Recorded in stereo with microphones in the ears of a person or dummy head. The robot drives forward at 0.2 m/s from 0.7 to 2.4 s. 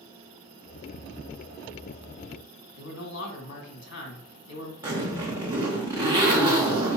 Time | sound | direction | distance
2.8 | a man speaking | 65° left (ahead or behind) | 1.5 m
4.8 | a zipper | 25° right (ahead or behind) | 0.9 m